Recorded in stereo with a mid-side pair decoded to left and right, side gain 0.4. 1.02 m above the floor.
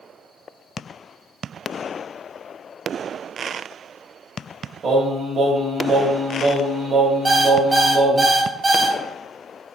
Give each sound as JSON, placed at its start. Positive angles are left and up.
{"t": 4.8, "sound": "singing", "azimuth_deg": -55, "distance_m": 2.0}
{"t": 7.2, "sound": "an alarm clock", "azimuth_deg": -30, "distance_m": 3.0}